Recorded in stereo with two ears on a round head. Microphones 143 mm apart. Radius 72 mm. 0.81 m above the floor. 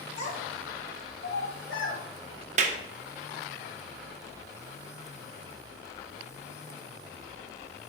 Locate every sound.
0.2 s a child speaking: 50° left (ahead or behind), 2 m; by 2.0 s 75° left (ahead or behind), 3.5 m
2.6 s a clap: 45° right (ahead or behind), 0.7 m